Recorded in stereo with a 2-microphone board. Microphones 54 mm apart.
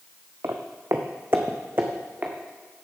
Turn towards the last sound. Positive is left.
turn(degrees=-35)  # may be behind; listen again after turning